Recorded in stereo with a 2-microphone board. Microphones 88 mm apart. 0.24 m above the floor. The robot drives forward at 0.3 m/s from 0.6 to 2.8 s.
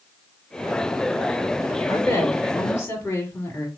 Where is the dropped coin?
I don't hear a dropped coin.